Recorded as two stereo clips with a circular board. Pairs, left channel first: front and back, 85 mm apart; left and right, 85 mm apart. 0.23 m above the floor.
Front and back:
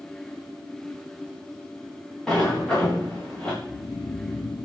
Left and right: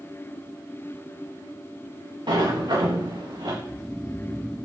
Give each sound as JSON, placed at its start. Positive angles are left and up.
{"t": 2.3, "sound": "a sliding door", "azimuth_deg": -80, "distance_m": 7.0}
{"t": 3.6, "sound": "snoring", "azimuth_deg": 5, "distance_m": 0.5}